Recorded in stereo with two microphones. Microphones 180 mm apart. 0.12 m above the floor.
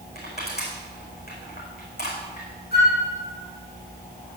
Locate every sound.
0.1 s crushing: 60° left (ahead or behind), 5.5 m
2.7 s a flute: 65° left (ahead or behind), 4.5 m